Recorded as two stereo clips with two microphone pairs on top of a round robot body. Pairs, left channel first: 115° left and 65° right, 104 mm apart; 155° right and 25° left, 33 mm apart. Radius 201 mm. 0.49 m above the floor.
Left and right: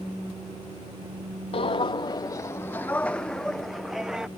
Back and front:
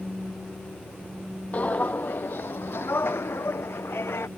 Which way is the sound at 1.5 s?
155° left.